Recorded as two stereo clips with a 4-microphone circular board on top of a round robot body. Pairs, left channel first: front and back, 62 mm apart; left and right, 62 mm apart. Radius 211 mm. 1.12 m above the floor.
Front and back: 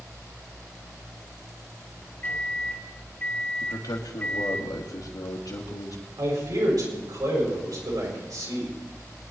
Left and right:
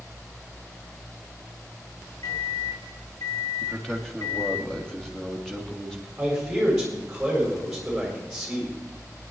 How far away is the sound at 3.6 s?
About 3 m.